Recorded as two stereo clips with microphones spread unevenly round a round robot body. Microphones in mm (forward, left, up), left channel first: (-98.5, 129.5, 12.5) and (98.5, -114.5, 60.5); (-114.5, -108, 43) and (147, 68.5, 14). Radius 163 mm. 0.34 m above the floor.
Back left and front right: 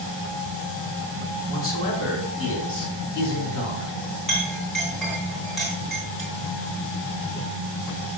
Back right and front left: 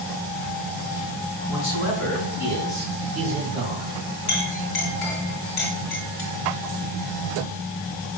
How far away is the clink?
About 2.5 m.